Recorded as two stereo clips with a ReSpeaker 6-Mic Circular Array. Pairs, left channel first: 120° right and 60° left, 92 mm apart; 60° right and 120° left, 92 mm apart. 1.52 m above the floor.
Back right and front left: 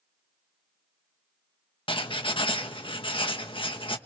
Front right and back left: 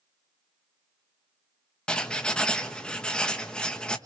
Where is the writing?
140° right, 1.5 m.